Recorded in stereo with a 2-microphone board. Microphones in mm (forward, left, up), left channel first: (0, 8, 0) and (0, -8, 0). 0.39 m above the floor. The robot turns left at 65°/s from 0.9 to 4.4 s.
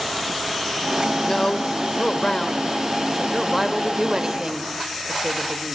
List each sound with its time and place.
1.2 s a woman speaking: 130° left, 1.4 m; by 5.8 s 75° right, 1.4 m